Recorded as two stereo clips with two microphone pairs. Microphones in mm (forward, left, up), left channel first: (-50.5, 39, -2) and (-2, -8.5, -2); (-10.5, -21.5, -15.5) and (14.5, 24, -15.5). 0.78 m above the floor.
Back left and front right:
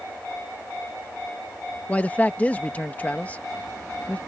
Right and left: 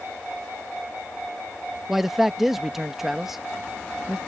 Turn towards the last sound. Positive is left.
turn(degrees=135)